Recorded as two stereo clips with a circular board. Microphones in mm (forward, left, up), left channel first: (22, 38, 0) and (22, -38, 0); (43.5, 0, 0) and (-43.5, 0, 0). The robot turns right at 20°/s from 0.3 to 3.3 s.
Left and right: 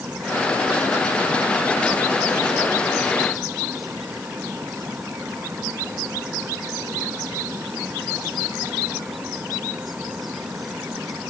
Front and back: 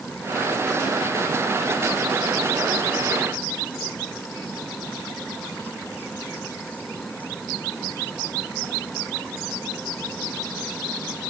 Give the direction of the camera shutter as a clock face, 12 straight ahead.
No camera shutter in this recording.